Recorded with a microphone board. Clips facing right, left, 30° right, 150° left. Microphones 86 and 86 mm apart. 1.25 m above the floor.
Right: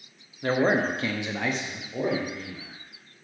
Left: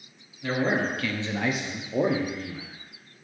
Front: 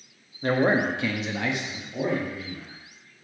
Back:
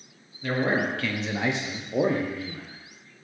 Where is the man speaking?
60° right, 1.0 m; by 2.8 s 130° left, 1.3 m.